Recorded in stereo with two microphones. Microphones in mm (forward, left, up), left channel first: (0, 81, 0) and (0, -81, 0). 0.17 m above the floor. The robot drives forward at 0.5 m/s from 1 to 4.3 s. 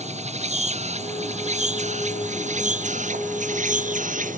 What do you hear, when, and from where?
0.0 s an insect: 45° right (ahead or behind); by 4.4 s 55° right (ahead or behind)